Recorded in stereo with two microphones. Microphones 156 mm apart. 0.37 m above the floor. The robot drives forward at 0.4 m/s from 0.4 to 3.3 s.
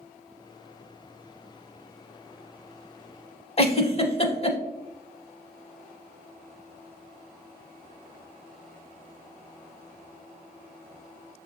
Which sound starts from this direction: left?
A giggle, at 3.6 s.